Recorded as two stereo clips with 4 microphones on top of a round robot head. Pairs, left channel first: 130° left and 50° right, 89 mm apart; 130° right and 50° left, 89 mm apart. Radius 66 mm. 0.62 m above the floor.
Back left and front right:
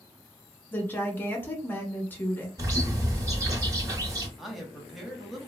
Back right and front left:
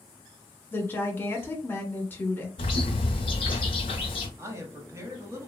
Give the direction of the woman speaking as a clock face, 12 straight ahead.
6 o'clock.